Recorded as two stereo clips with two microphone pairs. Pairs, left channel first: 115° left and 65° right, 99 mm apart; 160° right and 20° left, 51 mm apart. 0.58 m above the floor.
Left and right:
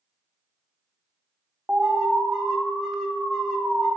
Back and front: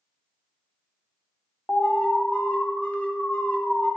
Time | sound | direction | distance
1.7 | an alarm | 145° right | 0.7 m